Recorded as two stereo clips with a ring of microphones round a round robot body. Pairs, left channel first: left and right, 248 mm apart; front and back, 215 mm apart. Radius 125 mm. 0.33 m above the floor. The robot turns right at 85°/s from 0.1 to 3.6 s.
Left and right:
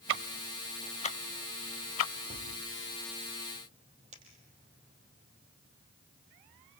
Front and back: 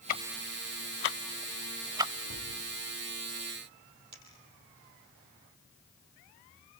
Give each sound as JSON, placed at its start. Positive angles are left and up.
{"t": 0.1, "sound": "ticking", "azimuth_deg": -55, "distance_m": 0.5}
{"t": 2.2, "sound": "a cupboard door", "azimuth_deg": 165, "distance_m": 8.5}
{"t": 4.1, "sound": "a dropped coin", "azimuth_deg": -155, "distance_m": 3.5}